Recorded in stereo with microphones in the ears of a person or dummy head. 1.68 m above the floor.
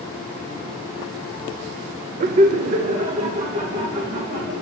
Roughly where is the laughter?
Right.